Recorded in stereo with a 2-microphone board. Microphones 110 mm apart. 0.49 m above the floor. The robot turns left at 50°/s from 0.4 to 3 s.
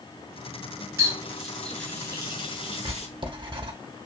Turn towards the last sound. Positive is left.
turn(degrees=-45)  # may be behind; listen again after turning